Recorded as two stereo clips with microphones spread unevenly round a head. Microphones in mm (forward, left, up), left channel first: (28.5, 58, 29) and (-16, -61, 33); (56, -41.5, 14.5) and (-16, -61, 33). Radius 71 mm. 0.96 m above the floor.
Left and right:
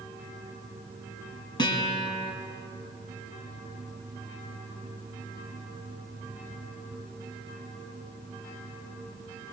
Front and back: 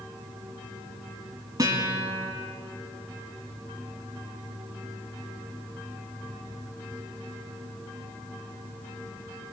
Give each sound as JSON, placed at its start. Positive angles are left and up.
{"t": 1.6, "sound": "a guitar", "azimuth_deg": 130, "distance_m": 4.5}